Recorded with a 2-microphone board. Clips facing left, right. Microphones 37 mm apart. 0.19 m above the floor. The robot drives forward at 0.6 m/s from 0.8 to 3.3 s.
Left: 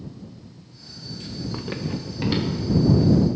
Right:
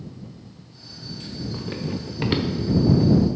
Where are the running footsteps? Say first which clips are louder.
Even; 30° left (ahead or behind), 0.8 m; by 3.1 s 40° right (ahead or behind), 1.9 m.